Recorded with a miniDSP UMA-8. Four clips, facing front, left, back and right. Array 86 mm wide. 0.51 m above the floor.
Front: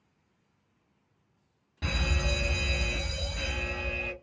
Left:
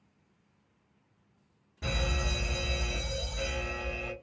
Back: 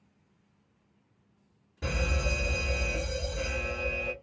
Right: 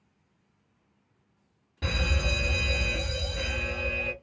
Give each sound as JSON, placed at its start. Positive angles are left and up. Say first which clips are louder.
{"t": 1.8, "sound": "a fire alarm", "louder": "right 3 dB, back 1 dB", "azimuth_deg": -45, "distance_m": 1.7}